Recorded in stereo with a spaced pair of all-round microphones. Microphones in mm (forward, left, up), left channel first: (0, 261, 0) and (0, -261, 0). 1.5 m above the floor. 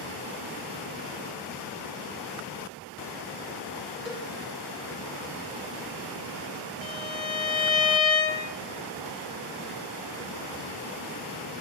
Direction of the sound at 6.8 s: 65° left (ahead or behind).